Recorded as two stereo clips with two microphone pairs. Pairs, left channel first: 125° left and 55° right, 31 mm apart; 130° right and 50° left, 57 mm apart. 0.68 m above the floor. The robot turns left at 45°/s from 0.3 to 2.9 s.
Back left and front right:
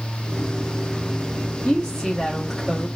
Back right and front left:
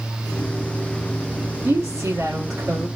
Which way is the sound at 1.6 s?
75° left.